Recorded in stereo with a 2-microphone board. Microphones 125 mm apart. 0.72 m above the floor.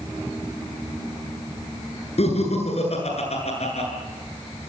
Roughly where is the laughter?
Left.